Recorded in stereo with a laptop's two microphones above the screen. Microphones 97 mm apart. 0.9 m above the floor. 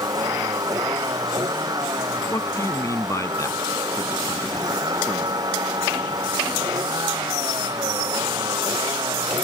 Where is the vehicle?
40° right (ahead or behind); by 9.4 s 45° right (ahead or behind).